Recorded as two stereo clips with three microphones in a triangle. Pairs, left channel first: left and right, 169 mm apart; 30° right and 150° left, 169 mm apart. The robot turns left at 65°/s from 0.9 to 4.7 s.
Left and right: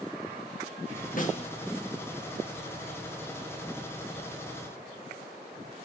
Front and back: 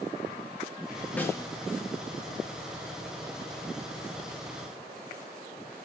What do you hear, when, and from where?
1.2 s a snare drum: 50° left, 1.4 m; by 1.5 s 30° left, 1.4 m